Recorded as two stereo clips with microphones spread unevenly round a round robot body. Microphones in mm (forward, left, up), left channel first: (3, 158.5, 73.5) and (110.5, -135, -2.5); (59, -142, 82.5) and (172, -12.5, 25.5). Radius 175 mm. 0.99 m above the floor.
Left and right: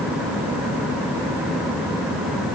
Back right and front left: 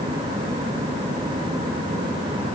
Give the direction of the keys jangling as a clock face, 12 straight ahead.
No keys jangling in this recording.